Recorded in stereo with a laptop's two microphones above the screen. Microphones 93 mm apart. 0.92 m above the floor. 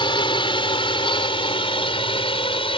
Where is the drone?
65° left (ahead or behind); by 2.8 s 80° left.